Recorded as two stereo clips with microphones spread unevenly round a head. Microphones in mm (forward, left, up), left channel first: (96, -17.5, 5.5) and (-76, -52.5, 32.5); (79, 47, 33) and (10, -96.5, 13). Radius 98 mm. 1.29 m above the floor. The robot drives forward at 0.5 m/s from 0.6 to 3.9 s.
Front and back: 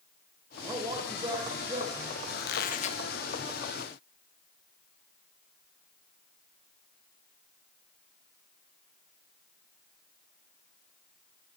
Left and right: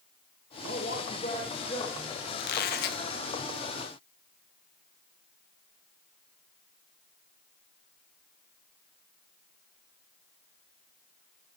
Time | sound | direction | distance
0.6 | a man speaking | 110° left | 1.3 m
2.4 | a squeak | 50° left | 0.7 m